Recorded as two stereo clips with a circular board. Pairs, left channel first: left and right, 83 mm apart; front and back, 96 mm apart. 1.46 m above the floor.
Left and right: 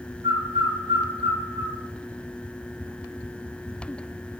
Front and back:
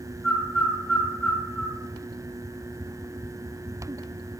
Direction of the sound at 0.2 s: 80° right.